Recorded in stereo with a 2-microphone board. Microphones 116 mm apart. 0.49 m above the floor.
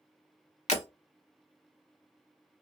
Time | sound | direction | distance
0.7 | breaking glass | 75° left (ahead or behind) | 0.8 m